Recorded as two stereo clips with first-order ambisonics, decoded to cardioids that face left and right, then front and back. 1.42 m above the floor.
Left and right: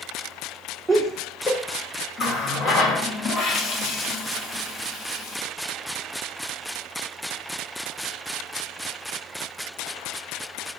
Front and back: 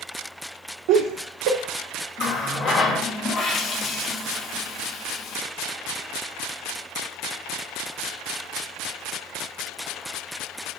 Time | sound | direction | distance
0.9 | laughter | 170° right | 0.7 m
2.2 | a running tap | 55° left | 1.0 m